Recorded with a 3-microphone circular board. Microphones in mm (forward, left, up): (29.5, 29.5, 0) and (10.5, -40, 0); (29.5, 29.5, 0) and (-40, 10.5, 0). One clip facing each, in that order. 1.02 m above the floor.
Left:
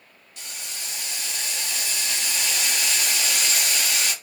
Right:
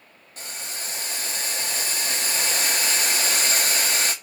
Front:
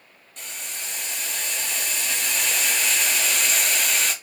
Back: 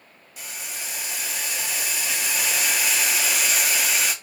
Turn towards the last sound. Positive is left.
turn(degrees=-85)